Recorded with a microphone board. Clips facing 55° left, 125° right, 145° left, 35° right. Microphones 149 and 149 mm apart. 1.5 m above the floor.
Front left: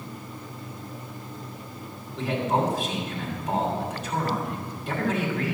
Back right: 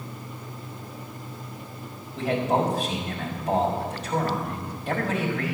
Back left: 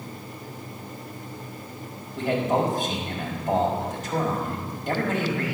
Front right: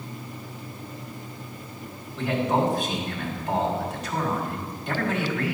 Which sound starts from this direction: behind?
A man speaking, at 2.2 s.